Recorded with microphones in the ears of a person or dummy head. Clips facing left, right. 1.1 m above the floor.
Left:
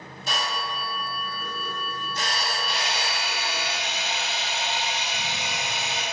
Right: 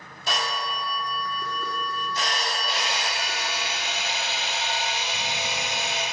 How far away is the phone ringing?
About 1.1 m.